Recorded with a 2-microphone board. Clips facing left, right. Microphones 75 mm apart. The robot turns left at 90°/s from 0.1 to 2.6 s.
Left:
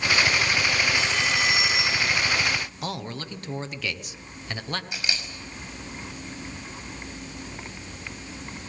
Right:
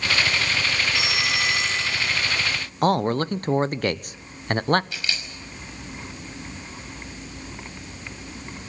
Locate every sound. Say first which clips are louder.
0.9 s a phone ringing: even; 20° right (ahead or behind), 0.7 m; by 2.2 s 25° left (ahead or behind), 0.7 m
2.8 s a man speaking: right 13 dB; 45° right (ahead or behind), 0.9 m
4.9 s a camera shutter: right 1 dB; 20° left (ahead or behind), 6 m